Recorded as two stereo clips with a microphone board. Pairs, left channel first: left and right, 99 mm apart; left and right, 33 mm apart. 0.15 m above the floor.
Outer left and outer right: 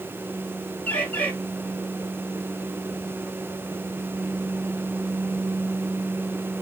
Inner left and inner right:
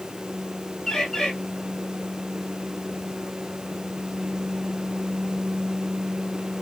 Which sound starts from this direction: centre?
A bird, at 0.9 s.